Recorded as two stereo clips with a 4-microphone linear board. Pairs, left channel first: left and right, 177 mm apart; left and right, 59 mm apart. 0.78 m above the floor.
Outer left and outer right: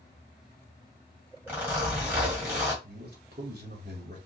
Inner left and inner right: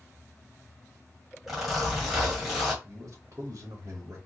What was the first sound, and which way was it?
A zipper, 10° right (ahead or behind).